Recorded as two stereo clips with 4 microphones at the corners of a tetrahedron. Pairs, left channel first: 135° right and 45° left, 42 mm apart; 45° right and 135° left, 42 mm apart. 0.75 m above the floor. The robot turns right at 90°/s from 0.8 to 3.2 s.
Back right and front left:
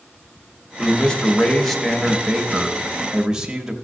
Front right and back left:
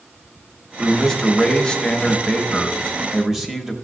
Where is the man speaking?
135° right, 0.9 m; by 3.8 s 80° left, 0.9 m.